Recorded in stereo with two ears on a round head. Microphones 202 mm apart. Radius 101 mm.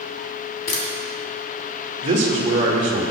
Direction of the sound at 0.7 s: 45° left (ahead or behind).